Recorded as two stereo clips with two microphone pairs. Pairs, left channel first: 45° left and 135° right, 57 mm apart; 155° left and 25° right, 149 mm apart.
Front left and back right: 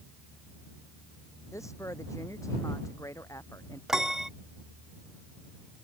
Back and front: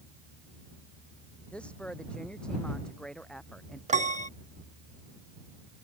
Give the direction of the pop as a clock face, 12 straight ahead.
I don't hear a pop.